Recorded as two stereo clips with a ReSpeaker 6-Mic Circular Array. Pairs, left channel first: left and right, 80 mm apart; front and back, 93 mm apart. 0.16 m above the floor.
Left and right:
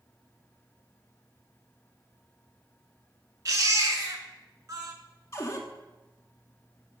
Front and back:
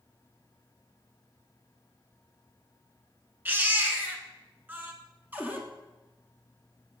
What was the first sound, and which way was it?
A baby crying, 115° right.